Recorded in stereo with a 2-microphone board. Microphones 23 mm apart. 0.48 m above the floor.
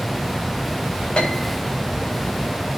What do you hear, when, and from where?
1.2 s a piano: 45° left (ahead or behind), 3.5 m